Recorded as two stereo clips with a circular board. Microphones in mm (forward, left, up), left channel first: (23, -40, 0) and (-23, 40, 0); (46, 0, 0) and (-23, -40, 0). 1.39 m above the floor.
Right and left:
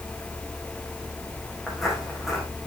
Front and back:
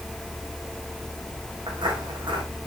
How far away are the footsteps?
About 5 m.